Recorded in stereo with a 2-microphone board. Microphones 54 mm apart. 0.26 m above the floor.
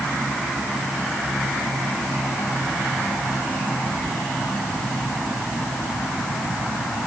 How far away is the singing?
I don't hear singing.